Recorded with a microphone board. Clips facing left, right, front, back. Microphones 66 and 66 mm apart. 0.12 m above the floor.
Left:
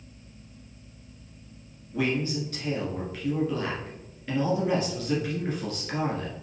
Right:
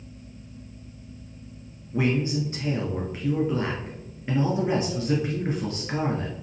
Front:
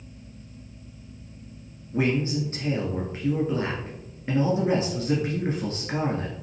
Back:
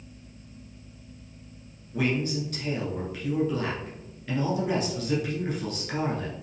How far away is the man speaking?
About 1.2 m.